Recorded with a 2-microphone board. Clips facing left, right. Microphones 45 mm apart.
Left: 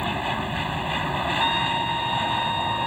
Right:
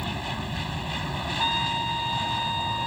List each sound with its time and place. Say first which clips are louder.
0.0 s an aircraft: left 6 dB; 25° left (ahead or behind)
1.4 s a trumpet: even; 10° left (ahead or behind)